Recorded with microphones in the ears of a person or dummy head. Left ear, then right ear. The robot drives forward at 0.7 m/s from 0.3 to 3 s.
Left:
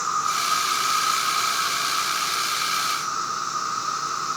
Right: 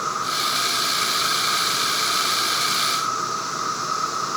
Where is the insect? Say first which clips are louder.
Even; 75° left (ahead or behind), 1.2 m; by 4.4 s 30° left (ahead or behind), 2.5 m.